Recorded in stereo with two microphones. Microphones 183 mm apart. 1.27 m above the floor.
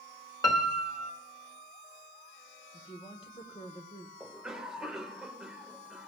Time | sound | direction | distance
0.4 | a piano | 20° left (ahead or behind) | 1.1 m
2.7 | a woman speaking | 30° left (ahead or behind) | 1.2 m
4.2 | a cough | 5° right (ahead or behind) | 1.4 m